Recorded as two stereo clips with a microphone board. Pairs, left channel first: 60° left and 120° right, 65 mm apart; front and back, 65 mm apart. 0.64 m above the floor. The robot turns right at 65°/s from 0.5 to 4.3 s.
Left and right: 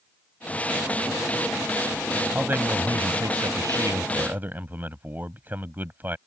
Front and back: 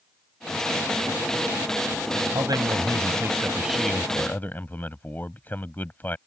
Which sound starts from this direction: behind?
A man speaking, at 2.4 s.